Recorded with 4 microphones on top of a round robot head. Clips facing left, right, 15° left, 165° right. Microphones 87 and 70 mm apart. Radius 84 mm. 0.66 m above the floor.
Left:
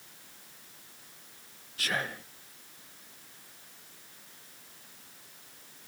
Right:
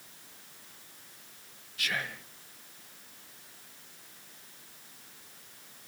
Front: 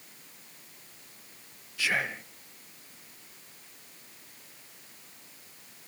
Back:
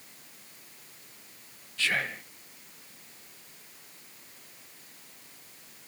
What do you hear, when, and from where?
1.8 s whispering: 85° left, 0.6 m